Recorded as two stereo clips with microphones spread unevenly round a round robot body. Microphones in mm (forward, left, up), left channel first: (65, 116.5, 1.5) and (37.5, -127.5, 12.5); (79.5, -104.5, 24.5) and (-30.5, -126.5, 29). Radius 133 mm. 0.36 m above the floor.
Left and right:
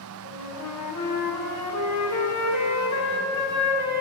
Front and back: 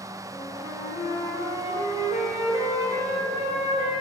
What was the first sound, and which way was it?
A flute, 90° left.